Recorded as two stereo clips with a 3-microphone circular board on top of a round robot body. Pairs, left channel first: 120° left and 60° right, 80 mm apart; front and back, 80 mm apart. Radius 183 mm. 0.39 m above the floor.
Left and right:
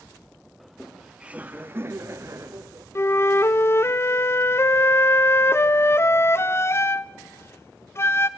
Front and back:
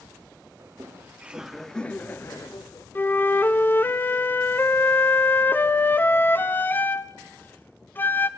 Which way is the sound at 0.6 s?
150° right.